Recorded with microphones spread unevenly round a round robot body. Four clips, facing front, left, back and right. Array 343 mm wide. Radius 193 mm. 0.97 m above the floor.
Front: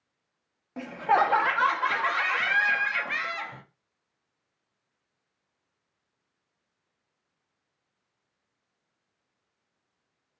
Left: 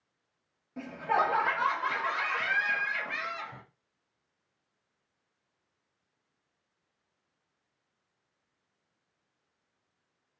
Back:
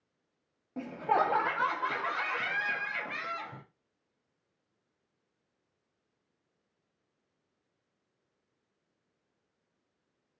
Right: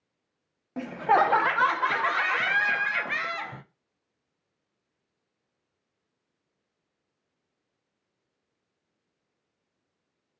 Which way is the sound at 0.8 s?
55° right.